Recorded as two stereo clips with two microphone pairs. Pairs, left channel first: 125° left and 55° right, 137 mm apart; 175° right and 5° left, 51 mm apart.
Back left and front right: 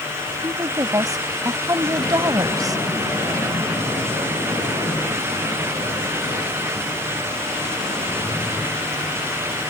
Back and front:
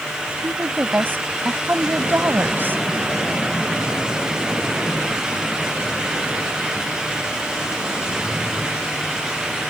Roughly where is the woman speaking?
Ahead.